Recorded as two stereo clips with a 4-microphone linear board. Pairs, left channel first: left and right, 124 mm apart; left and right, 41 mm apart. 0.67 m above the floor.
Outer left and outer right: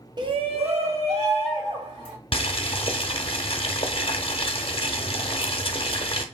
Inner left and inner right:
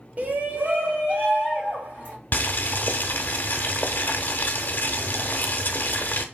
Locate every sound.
0.2 s a shout: 40° right (ahead or behind), 0.7 m; by 2.1 s 65° right (ahead or behind), 2.5 m
2.3 s boiling: 55° left (ahead or behind), 0.6 m